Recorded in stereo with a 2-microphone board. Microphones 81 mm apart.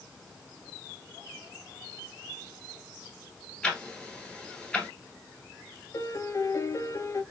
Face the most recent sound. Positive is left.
turn(degrees=35)  # may be behind; listen again after turning